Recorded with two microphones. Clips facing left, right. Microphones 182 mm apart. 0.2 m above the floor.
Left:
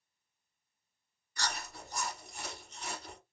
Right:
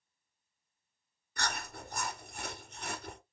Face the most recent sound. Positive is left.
turn(degrees=-60)  # may be behind; listen again after turning